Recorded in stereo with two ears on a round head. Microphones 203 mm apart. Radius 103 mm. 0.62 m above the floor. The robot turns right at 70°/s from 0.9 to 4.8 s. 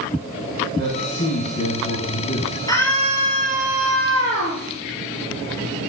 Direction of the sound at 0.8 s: 40° left.